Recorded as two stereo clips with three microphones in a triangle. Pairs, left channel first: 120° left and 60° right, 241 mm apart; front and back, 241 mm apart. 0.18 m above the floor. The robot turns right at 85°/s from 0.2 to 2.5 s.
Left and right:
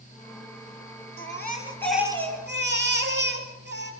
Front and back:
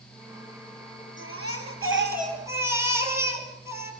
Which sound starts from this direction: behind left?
A baby crying, at 1.2 s.